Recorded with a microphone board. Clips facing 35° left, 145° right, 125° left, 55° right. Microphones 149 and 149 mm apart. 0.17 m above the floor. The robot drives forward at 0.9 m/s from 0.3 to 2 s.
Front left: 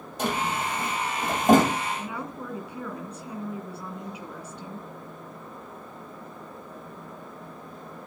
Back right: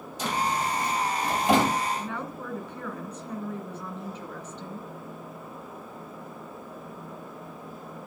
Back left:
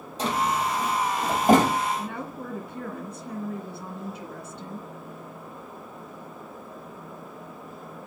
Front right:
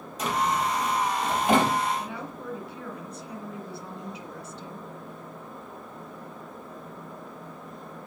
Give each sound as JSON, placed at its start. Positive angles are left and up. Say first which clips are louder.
{"t": 0.2, "sound": "a drawer", "louder": "even, back left 1 dB", "azimuth_deg": 65, "distance_m": 4.5}
{"t": 2.0, "sound": "a woman speaking", "louder": "even, back left 2 dB", "azimuth_deg": 110, "distance_m": 2.5}